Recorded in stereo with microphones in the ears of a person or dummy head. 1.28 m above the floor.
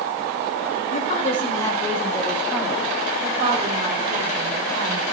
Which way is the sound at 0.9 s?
40° left (ahead or behind).